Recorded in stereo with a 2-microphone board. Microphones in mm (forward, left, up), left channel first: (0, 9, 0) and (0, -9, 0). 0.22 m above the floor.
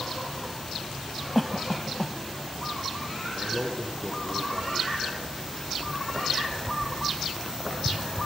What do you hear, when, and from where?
1.4 s a cough: 5° left (ahead or behind), 1.3 m
3.3 s a man speaking: 85° right, 10 m